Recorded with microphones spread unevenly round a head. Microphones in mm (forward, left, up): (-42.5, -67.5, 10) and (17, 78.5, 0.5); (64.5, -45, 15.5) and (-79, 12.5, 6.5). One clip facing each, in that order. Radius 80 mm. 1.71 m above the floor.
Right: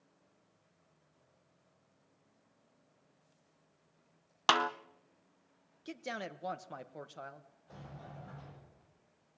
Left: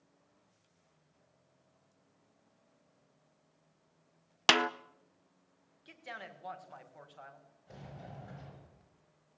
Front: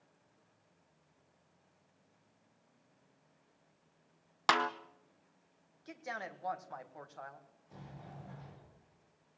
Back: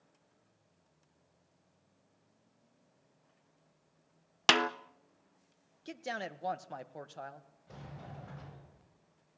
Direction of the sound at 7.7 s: 135° left.